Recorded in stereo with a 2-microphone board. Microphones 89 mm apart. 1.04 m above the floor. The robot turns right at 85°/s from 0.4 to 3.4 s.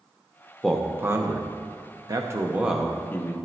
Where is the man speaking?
175° left, 0.8 m; by 3.4 s 50° left, 0.8 m.